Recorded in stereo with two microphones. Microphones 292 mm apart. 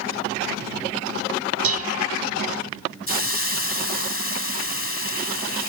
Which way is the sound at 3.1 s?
50° left (ahead or behind).